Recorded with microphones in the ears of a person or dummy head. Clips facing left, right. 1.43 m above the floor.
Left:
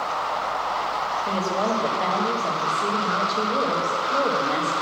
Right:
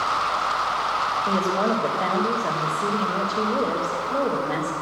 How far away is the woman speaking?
About 1.3 m.